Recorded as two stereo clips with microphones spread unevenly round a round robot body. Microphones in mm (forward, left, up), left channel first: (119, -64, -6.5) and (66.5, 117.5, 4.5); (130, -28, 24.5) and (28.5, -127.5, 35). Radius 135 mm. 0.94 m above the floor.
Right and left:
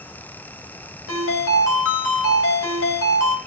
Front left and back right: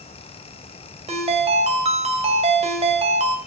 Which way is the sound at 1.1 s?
95° right.